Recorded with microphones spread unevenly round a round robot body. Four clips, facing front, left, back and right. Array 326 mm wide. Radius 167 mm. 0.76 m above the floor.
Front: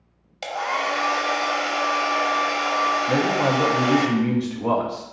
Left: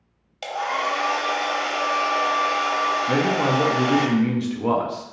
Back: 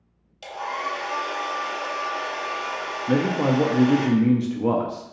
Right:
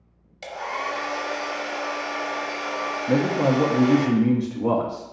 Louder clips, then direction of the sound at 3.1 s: Right 4 dB, front 1 dB; 165° right.